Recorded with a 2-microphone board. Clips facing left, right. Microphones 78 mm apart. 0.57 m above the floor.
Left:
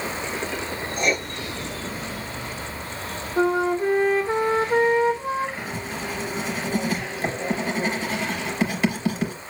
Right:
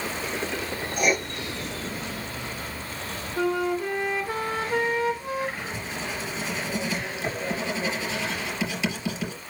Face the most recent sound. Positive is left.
turn(degrees=50)  # may be behind; listen again after turning